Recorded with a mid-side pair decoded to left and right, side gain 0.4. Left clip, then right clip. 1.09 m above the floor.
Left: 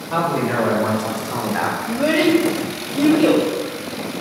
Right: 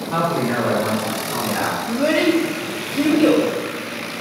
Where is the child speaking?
Straight ahead, 0.7 m.